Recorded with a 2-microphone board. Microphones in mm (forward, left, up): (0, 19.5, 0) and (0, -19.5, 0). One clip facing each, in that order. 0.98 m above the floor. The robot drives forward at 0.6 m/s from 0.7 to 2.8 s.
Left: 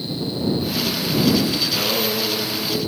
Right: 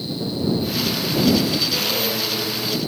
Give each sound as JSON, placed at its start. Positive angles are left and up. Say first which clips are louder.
{"t": 1.6, "sound": "singing", "louder": "left 1 dB", "side_deg": 35, "distance_m": 4.0}